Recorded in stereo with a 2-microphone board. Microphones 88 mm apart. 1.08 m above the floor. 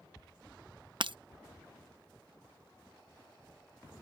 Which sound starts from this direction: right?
Breaking glass, at 1.0 s.